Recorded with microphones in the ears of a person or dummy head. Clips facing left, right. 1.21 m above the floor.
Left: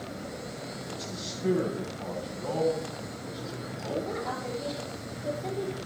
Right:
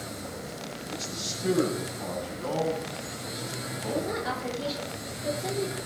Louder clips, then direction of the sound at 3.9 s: Right 2 dB; 5° right (ahead or behind).